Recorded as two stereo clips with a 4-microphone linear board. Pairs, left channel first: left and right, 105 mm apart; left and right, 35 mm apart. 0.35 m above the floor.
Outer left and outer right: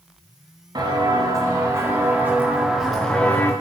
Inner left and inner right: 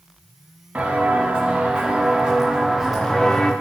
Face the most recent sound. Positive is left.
turn(degrees=20)  # may be behind; listen again after turning